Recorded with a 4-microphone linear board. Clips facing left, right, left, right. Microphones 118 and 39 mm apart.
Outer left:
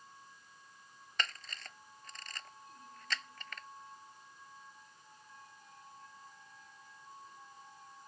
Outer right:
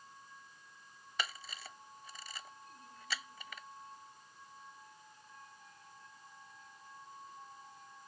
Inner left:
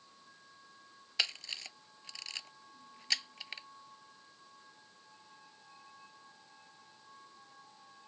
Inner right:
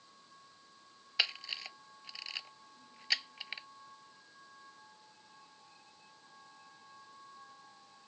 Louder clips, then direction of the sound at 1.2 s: Even, inner right 2 dB; 10° right (ahead or behind).